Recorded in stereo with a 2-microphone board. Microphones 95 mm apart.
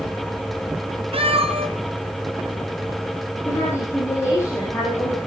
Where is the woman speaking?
30° left (ahead or behind), 8 m.